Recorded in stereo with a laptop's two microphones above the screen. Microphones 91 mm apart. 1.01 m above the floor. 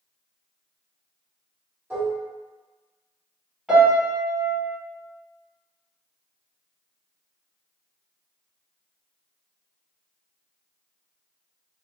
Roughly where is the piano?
Centre.